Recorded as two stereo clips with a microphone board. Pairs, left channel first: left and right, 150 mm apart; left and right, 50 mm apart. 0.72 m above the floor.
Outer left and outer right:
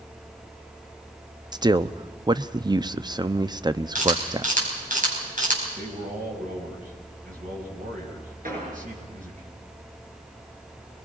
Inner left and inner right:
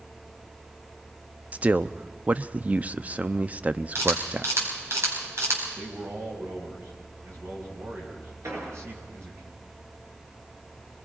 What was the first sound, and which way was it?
A man speaking, 30° right (ahead or behind).